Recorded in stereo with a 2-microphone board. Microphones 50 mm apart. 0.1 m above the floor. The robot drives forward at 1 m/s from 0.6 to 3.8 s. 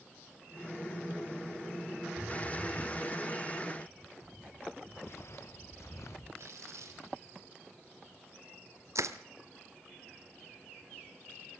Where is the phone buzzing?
15° right (ahead or behind), 5 m.